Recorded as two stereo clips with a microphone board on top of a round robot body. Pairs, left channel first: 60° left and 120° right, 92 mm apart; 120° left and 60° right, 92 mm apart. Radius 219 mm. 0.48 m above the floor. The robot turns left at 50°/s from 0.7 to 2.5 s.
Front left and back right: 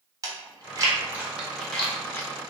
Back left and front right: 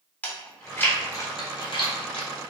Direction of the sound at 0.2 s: 170° right.